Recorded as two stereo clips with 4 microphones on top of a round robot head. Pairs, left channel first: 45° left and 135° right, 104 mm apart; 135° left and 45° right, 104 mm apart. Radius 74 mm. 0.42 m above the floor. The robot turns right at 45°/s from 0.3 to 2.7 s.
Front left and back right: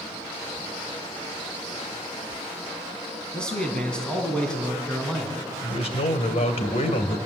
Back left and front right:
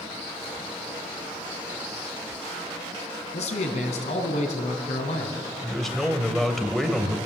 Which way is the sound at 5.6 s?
50° left.